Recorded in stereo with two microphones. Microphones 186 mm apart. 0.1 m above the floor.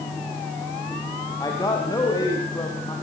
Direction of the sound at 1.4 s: 20° left (ahead or behind).